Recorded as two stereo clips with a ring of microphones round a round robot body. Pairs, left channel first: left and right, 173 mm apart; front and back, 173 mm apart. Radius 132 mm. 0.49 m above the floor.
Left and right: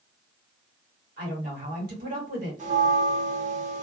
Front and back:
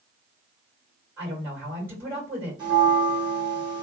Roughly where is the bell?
Behind right.